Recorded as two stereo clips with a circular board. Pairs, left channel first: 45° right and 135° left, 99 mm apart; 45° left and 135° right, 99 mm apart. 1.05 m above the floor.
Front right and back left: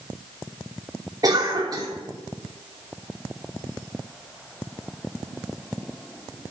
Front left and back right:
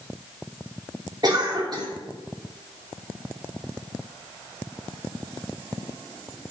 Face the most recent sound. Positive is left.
turn(degrees=-175)